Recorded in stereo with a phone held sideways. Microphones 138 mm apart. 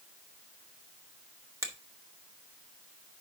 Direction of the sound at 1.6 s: 25° right (ahead or behind).